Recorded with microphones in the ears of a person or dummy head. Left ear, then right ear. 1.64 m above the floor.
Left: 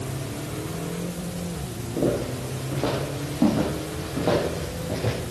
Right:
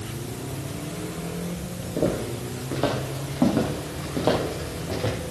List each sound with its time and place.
2.0 s footsteps: 70° right (ahead or behind), 6.5 m